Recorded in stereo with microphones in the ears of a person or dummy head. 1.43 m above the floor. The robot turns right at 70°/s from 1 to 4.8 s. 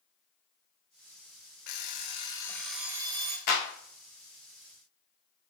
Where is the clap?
55° left (ahead or behind), 1.5 m; by 3.7 s 40° left (ahead or behind), 1.5 m.